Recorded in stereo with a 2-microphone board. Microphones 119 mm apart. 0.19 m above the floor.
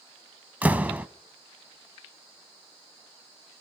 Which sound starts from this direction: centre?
A door slam, at 0.6 s.